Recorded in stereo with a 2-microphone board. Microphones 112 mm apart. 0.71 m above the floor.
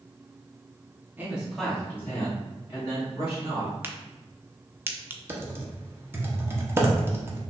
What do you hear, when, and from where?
1.2 s a man speaking: 20° right (ahead or behind), 1.2 m; by 3.7 s 45° left (ahead or behind), 3 m
3.8 s a crack: 20° right (ahead or behind), 0.6 m
5.3 s typing on a keyboard: 20° right (ahead or behind), 0.8 m